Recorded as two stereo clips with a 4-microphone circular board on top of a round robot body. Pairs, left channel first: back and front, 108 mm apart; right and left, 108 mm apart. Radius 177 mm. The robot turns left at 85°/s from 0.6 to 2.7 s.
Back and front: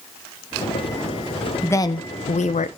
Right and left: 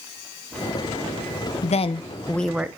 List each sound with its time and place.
1.6 s a woman speaking: 105° right, 0.6 m; by 2.7 s 165° left, 0.6 m